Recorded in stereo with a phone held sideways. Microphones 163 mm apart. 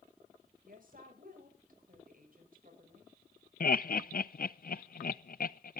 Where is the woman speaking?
65° right (ahead or behind), 7 m.